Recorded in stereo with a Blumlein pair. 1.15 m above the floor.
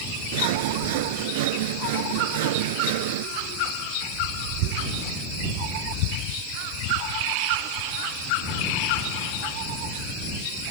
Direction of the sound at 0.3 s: 50° right.